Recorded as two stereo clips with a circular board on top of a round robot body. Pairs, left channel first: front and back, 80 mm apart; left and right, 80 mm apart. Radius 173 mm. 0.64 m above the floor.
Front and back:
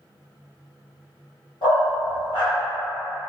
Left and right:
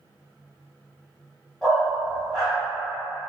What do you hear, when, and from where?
1.6 s a dog barking: 10° left, 1.6 m